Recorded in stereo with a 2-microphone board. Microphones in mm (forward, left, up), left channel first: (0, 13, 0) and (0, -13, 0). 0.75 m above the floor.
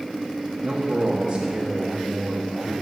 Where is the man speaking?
10° right (ahead or behind), 1.3 m.